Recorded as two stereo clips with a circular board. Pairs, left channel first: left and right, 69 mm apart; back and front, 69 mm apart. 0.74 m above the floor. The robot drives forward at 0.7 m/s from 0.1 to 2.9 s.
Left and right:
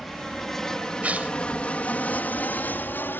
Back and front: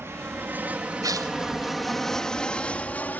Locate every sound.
0.0 s an aircraft: straight ahead; by 3.2 s 130° left
1.0 s tearing paper: 20° right